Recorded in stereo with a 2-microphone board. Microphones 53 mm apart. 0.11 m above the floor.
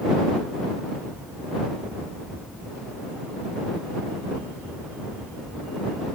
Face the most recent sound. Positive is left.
No sound to turn to.